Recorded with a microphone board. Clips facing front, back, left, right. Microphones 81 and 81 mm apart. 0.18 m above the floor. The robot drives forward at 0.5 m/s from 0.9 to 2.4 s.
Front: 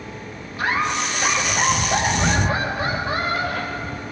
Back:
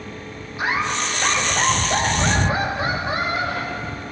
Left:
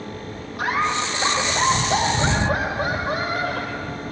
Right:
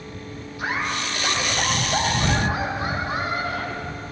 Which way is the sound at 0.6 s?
110° left.